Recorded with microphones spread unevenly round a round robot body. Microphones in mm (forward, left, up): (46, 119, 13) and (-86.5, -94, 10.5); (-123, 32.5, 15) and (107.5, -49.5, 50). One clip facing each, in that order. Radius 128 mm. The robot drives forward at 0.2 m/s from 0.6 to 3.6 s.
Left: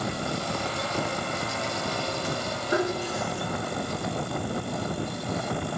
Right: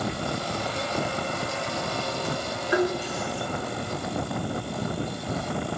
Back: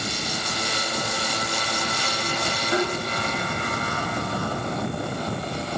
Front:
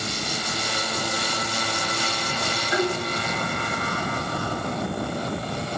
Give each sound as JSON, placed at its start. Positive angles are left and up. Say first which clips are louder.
{"t": 2.7, "sound": "tapping", "louder": "right 3 dB, front 1 dB", "azimuth_deg": 110, "distance_m": 1.4}